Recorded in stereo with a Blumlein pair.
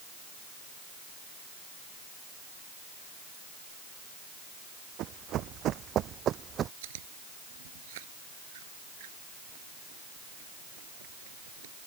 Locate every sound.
5.0 s running footsteps: 35° right; by 6.7 s 25° right
6.8 s chewing: 55° right